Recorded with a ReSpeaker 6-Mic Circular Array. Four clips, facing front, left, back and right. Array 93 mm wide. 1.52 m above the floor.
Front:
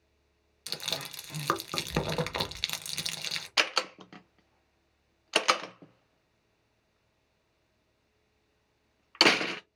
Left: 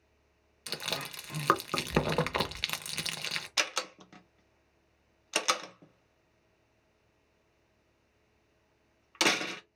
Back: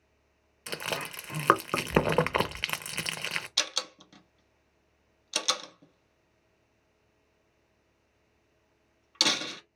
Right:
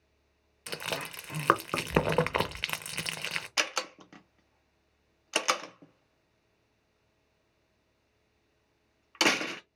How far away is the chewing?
About 0.6 m.